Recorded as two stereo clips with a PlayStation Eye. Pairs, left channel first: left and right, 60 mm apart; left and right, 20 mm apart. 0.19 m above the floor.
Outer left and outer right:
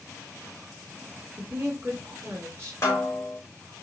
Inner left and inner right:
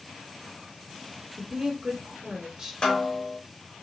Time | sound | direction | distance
1.4 | a woman speaking | 40° right (ahead or behind) | 4.5 m
2.8 | a snare drum | 50° left (ahead or behind) | 2.0 m